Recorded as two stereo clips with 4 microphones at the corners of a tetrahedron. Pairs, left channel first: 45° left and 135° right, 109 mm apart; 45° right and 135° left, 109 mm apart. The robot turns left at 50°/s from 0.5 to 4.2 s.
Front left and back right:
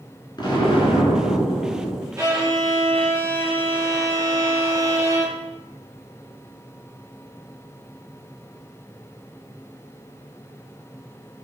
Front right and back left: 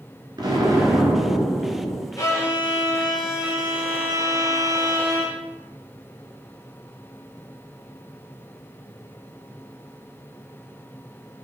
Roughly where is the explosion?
Left.